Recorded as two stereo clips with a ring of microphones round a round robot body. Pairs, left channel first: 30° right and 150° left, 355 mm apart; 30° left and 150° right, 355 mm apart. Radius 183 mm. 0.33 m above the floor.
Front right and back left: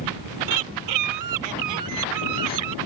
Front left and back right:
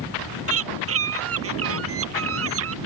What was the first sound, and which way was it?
A bird, 155° left.